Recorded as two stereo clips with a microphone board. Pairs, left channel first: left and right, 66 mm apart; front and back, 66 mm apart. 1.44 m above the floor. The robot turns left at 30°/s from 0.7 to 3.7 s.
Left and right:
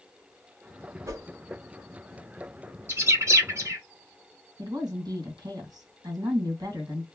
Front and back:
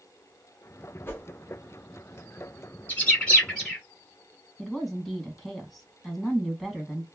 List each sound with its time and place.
1.1 s a whoosh: 50° right, 0.8 m; by 1.3 s 60° right, 0.8 m
2.9 s a bird: 55° right, 1.2 m; by 3.8 s 80° right, 1.2 m
4.6 s a woman speaking: 80° right, 1.4 m